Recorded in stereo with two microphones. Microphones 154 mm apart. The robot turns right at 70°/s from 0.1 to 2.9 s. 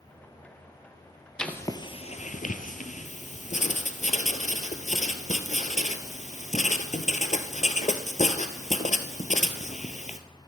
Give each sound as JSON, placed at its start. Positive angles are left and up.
{"t": 1.4, "sound": "writing", "side_deg": 5, "distance_m": 1.3}